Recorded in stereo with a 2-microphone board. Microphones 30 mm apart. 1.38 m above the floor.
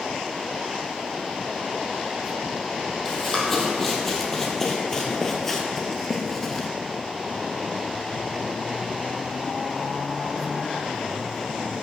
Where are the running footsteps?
15° left (ahead or behind), 2.5 m; by 6.7 s 10° left (ahead or behind), 1.4 m.